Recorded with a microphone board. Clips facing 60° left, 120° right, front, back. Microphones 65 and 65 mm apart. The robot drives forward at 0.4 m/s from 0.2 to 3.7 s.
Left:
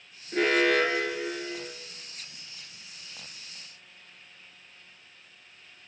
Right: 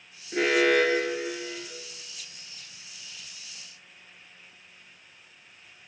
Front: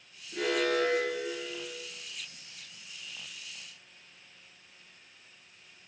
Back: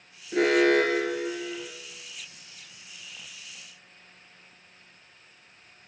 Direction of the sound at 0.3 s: 150° left.